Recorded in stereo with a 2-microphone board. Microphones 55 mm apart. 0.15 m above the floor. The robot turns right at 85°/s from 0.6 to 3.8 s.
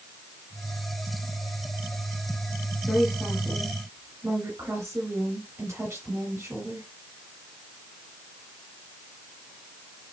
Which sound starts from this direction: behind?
A woman speaking, at 2.9 s.